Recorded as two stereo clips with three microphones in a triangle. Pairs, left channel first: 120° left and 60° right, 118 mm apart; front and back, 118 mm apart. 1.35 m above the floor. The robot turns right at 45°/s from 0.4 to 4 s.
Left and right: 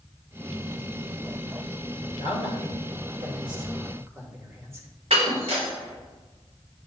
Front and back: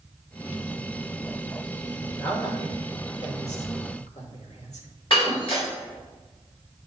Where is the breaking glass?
40° right, 2.5 m.